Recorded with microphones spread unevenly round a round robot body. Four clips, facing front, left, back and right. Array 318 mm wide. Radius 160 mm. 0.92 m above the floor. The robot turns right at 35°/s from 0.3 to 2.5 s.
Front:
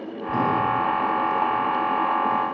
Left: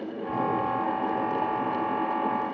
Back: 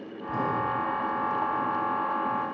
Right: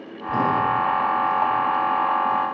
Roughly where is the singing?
I don't hear singing.